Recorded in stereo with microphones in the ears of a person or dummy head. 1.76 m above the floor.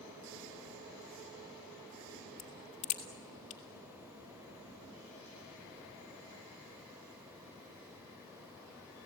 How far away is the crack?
About 1.9 m.